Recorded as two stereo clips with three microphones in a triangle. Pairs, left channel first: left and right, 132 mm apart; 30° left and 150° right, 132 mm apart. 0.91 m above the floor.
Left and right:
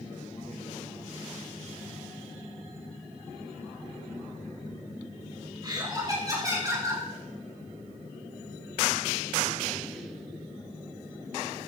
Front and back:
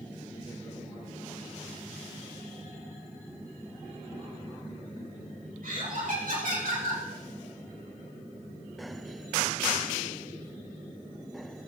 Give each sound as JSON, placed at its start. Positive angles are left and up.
{"t": 5.6, "sound": "laughter", "azimuth_deg": -145, "distance_m": 4.5}